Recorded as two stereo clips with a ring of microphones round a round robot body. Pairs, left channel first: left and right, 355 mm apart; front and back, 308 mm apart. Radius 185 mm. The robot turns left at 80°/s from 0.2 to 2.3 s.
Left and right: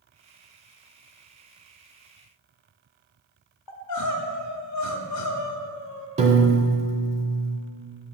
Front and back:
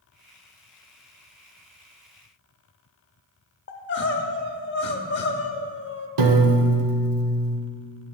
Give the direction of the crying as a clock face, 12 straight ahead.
10 o'clock.